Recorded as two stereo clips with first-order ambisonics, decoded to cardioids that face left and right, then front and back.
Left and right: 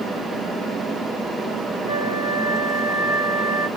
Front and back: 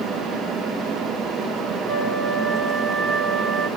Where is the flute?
120° left, 1.5 m.